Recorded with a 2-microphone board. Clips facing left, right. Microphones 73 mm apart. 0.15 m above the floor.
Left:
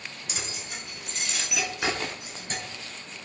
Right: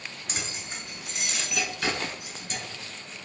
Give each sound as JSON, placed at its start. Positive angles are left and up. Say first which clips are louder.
{"t": 0.3, "sound": "keys jangling", "louder": "right 1 dB", "side_deg": -40, "distance_m": 1.2}